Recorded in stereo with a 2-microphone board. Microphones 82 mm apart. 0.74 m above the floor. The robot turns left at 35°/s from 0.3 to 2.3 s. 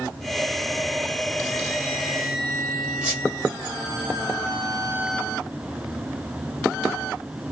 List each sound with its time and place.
3.0 s a squeak: 15° right (ahead or behind), 1.4 m